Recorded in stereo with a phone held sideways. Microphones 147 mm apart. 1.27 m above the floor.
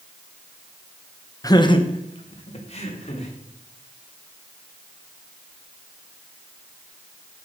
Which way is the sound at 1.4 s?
25° left (ahead or behind).